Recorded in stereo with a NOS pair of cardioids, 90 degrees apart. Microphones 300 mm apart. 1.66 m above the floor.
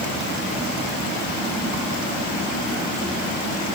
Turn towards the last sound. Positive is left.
No sound to turn to.